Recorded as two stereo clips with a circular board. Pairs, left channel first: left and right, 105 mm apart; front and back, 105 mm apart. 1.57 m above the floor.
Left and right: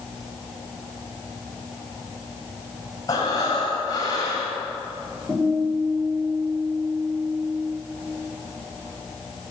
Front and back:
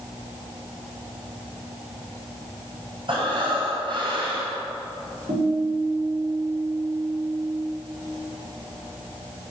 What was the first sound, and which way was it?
Breathing, 140° left.